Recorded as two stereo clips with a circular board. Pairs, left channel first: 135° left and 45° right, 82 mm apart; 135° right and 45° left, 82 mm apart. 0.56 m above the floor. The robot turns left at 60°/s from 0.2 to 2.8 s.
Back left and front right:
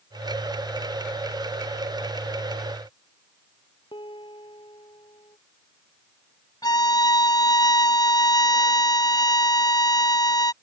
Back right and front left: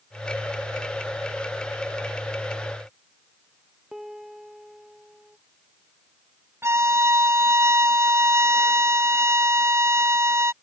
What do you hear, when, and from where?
3.9 s a piano: 130° left
6.6 s a violin: 100° left